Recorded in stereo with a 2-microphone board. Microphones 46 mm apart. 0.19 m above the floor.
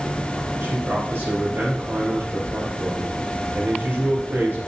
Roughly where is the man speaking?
Right.